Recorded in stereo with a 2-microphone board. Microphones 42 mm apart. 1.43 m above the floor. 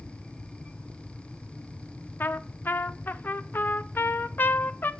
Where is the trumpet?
55° left (ahead or behind), 0.6 m.